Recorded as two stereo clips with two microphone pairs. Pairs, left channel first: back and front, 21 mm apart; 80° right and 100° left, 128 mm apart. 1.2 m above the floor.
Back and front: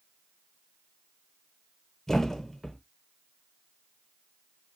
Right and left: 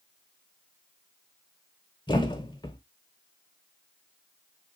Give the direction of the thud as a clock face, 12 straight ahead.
4 o'clock.